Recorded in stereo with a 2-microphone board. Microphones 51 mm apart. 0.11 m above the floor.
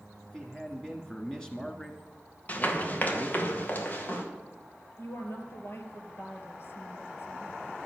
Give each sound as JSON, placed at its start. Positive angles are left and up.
{"t": 0.2, "sound": "a man speaking", "side_deg": 15, "distance_m": 1.2}
{"t": 2.5, "sound": "running footsteps", "side_deg": 30, "distance_m": 2.0}
{"t": 5.0, "sound": "a woman speaking", "side_deg": 55, "distance_m": 2.0}